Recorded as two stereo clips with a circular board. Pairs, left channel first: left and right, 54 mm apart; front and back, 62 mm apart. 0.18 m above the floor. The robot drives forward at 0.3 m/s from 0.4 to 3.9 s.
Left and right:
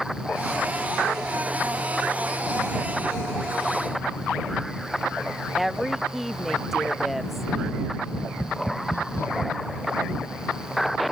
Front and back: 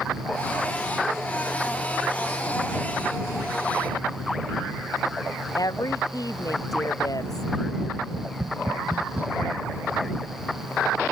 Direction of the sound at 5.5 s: Straight ahead.